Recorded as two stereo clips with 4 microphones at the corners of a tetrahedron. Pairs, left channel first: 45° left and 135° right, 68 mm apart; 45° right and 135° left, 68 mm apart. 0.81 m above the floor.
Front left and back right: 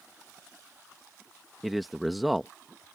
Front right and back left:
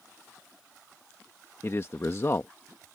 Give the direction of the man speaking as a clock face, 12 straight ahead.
2 o'clock.